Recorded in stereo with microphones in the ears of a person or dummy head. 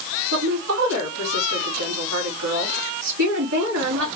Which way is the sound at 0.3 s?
75° right (ahead or behind).